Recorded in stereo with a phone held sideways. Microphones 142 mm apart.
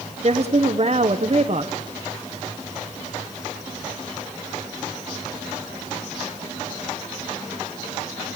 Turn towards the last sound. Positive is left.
turn(degrees=-45)  # may be behind; listen again after turning